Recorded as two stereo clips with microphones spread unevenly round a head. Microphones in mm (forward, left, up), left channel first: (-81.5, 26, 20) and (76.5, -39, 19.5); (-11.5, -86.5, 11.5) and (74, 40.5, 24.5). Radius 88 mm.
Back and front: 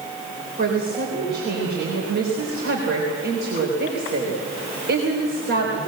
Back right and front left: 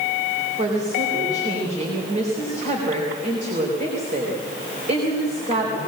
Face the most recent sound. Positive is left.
turn(degrees=15)